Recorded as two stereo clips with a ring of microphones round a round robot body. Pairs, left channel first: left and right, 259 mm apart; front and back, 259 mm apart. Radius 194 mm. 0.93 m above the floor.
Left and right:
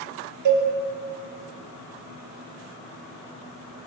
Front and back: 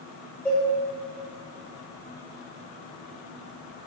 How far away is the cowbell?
About 0.6 m.